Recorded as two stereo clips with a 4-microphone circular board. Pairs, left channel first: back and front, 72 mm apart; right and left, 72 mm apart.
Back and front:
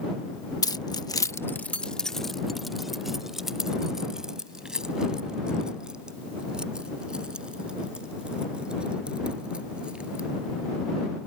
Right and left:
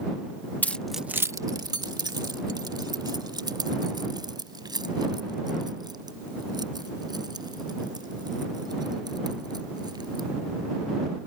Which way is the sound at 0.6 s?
155° right.